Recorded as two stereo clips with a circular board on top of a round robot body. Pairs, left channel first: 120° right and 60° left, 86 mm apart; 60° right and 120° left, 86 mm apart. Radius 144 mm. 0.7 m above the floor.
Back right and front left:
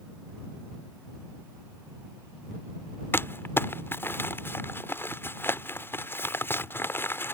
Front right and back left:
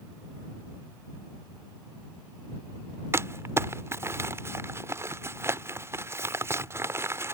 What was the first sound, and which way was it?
Crumpling, 175° left.